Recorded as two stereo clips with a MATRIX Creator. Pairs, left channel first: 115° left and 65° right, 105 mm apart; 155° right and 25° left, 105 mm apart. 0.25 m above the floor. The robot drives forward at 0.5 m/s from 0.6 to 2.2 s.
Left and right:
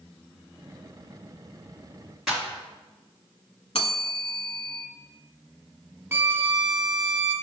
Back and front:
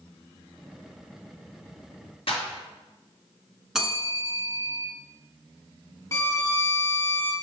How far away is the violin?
About 0.8 m.